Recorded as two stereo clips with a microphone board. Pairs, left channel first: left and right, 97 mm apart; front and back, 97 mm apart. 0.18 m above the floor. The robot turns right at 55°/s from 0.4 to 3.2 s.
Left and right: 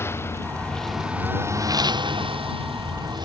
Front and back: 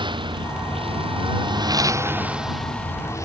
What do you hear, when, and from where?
0.0 s a lawn mower: 150° left; by 3.3 s 55° right